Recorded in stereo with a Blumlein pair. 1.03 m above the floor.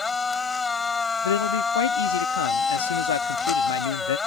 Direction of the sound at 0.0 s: 15° left.